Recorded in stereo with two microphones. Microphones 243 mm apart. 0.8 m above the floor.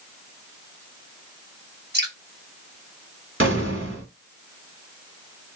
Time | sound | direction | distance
1.9 | dripping | 40° right (ahead or behind) | 1.5 m
3.4 | an explosion | 55° right (ahead or behind) | 1.1 m